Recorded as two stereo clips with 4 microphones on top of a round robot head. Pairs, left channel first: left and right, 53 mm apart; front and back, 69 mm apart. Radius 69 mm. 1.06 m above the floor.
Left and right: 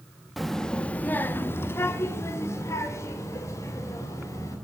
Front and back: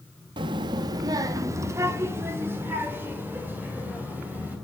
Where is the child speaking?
Straight behind, 0.7 m; by 4.6 s 110° left, 3.5 m.